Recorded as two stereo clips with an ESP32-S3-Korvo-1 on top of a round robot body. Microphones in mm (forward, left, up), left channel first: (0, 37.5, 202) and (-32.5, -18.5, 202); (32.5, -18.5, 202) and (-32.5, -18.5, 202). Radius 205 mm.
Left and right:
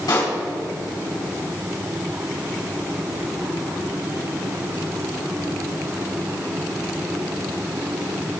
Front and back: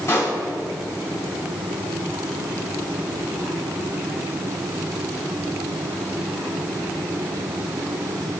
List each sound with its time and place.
0.1 s a pop: 45° left, 3.5 m